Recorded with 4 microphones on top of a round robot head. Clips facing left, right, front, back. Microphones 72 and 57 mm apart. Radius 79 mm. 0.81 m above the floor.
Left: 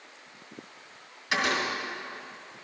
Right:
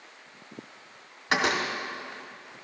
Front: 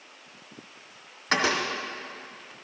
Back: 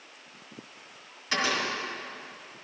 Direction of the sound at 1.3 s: 45° right.